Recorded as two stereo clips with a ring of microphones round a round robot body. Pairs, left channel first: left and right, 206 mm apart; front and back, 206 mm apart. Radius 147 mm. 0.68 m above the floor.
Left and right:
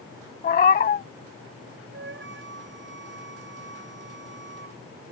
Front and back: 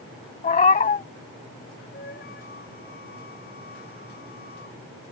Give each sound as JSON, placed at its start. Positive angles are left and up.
{"t": 0.4, "sound": "a cat meowing", "azimuth_deg": 50}
{"t": 1.9, "sound": "a flute", "azimuth_deg": -60}